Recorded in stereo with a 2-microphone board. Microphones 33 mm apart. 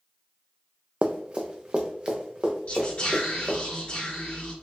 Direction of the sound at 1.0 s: 35° right (ahead or behind).